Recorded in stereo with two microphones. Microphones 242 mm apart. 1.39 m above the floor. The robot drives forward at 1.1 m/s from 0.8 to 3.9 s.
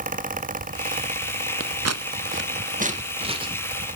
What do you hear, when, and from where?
1.6 s scissors: 60° right (ahead or behind), 0.7 m; by 3.6 s 20° right (ahead or behind), 2.0 m